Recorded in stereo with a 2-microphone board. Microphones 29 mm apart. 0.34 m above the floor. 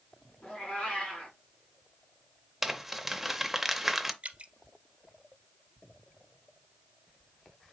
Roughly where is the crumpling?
Centre.